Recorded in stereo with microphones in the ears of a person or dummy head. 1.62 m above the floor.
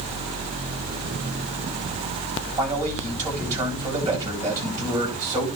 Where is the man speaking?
25° right (ahead or behind), 9.5 m.